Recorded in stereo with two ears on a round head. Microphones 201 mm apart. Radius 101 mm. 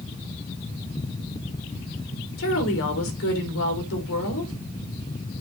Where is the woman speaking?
65° left (ahead or behind), 4.5 m.